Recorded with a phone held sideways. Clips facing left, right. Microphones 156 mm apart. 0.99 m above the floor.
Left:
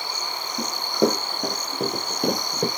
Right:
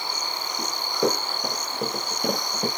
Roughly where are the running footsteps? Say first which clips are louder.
Left 3 dB; left.